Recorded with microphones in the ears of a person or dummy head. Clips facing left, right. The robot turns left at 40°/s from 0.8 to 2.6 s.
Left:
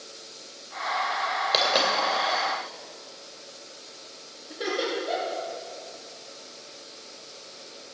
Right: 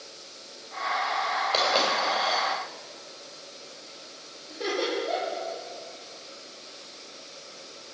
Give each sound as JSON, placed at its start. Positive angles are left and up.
{"t": 1.5, "sound": "a dropped coin", "side_deg": 20, "distance_m": 2.0}
{"t": 4.5, "sound": "laughter", "side_deg": 10, "distance_m": 3.0}